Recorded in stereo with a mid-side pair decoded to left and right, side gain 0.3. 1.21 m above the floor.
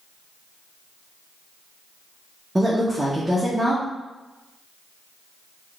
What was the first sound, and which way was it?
A woman speaking, 20° right.